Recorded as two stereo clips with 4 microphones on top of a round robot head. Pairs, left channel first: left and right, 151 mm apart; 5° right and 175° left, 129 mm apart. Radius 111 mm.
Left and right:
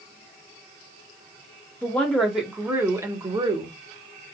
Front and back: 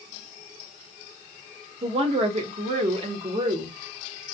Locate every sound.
1.8 s a woman speaking: 165° left, 1.1 m; by 3.8 s 140° right, 1.4 m